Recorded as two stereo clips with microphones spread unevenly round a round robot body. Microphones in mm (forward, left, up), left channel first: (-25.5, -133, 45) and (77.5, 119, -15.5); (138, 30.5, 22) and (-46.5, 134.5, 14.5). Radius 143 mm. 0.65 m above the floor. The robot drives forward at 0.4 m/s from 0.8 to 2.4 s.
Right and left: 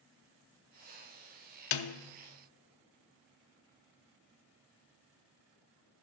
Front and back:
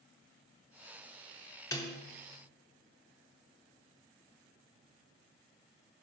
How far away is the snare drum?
About 0.7 m.